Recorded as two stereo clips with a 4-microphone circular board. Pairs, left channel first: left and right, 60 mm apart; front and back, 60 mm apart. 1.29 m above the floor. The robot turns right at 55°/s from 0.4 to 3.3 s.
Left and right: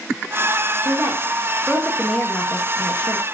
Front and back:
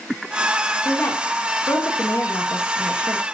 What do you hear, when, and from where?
0.8 s a woman speaking: 55° right, 1.7 m; by 3.2 s 75° left, 1.7 m